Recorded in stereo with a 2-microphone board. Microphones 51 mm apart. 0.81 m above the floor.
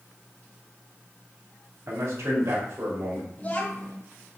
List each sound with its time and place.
1.9 s a man speaking: 70° right (ahead or behind), 1.9 m; by 3.3 s 60° right (ahead or behind), 2.5 m
3.4 s a child speaking: 30° left (ahead or behind), 1.1 m